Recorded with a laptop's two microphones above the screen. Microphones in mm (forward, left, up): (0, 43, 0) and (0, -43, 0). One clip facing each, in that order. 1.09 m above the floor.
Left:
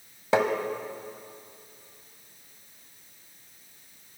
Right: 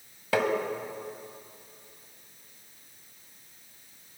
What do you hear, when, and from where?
0.3 s tapping: 25° left (ahead or behind), 1.7 m